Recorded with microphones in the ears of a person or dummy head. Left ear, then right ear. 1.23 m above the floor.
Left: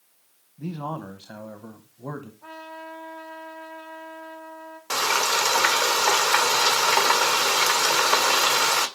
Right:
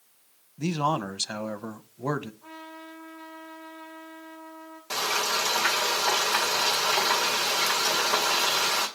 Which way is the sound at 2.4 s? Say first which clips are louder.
Left 4 dB; 65° left (ahead or behind).